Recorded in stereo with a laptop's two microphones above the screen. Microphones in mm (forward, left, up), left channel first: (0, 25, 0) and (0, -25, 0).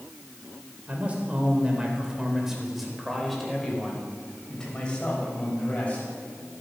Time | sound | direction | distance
0.9 | a man speaking | 30° right (ahead or behind) | 3.5 m